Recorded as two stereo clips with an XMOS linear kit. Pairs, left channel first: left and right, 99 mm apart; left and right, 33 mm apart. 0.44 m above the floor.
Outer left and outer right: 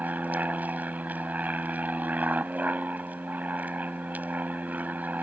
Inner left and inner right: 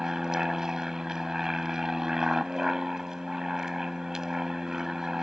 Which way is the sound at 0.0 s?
15° right (ahead or behind).